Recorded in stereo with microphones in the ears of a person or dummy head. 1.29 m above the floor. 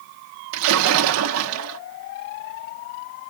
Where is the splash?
75° right (ahead or behind), 1.2 m.